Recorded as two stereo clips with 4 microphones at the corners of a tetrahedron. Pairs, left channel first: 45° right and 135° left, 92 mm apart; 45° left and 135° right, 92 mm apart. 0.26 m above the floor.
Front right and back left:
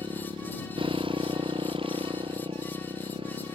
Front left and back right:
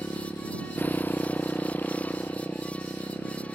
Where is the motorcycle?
110° left; by 3.6 s 115° left.